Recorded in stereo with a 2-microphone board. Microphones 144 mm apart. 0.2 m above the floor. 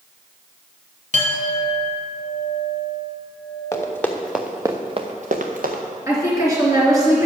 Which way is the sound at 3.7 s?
20° left (ahead or behind).